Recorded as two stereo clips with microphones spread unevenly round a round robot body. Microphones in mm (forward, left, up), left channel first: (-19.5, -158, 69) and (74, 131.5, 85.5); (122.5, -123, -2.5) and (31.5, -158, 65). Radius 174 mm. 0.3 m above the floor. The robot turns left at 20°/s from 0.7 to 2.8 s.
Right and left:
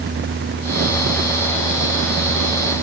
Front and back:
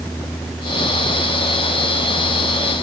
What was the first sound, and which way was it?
Only background noise.